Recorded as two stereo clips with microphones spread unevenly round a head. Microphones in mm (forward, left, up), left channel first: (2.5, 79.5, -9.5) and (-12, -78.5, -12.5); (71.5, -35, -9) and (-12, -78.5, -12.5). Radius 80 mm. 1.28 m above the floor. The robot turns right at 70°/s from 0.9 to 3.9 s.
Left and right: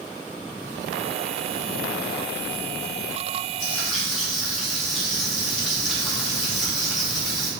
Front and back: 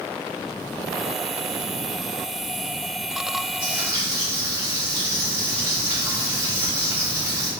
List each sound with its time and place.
3.6 s frying: 155° left, 1.4 m; by 7.5 s 175° left, 1.4 m